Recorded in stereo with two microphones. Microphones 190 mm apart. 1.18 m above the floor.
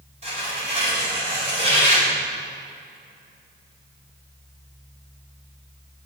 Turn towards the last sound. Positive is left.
turn(degrees=-35)  # may be behind; listen again after turning